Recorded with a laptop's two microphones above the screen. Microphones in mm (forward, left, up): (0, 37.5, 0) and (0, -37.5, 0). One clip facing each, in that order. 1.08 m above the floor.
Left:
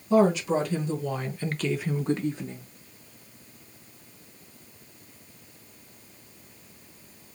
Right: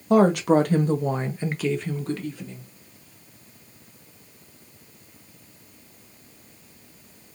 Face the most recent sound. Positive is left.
turn(degrees=35)  # may be behind; listen again after turning